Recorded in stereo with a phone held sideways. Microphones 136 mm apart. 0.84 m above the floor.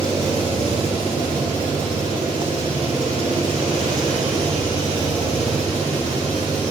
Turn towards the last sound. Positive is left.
turn(degrees=-40)  # may be behind; listen again after turning